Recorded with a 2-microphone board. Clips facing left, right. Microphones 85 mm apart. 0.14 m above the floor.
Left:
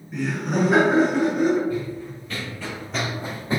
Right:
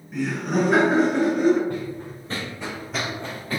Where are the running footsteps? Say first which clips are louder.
Left 2 dB; 50° right (ahead or behind), 0.9 m; by 3.6 s 25° left (ahead or behind), 0.8 m.